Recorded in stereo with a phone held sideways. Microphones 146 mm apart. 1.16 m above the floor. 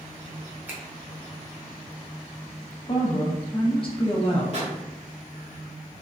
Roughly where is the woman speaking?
Left.